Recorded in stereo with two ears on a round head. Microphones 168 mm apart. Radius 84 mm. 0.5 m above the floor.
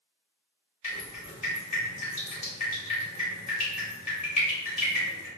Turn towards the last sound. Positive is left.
turn(degrees=35)  # may be behind; listen again after turning